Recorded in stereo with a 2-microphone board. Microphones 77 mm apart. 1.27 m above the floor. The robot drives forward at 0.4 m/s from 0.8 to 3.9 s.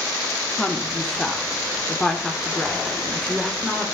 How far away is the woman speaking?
About 2.5 m.